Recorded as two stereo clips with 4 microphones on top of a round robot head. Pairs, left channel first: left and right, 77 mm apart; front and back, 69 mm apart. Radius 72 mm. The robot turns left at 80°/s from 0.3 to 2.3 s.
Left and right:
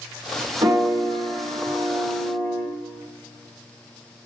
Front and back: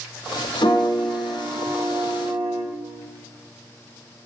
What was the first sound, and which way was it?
A piano, 45° right.